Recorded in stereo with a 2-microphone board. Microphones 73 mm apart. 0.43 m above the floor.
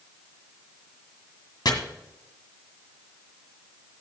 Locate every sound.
1.6 s chopping: 75° left (ahead or behind), 1.6 m